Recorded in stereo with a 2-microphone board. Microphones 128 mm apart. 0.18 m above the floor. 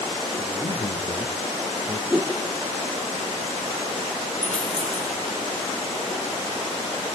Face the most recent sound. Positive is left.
turn(degrees=75)  # may be behind; listen again after turning